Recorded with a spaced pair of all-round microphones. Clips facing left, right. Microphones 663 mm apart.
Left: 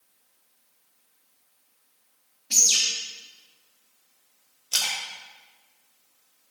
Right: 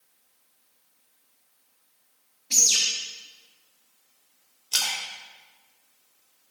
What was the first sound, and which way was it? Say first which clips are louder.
A bird: right 1 dB; 20° left (ahead or behind).